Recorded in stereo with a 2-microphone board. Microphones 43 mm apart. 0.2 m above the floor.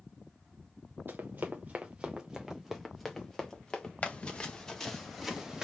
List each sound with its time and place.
1.1 s running footsteps: 50° right (ahead or behind), 1.2 m; by 3.9 s 20° left (ahead or behind), 1.6 m
4.0 s running footsteps: 30° left (ahead or behind), 1.7 m; by 5.6 s 15° right (ahead or behind), 1.9 m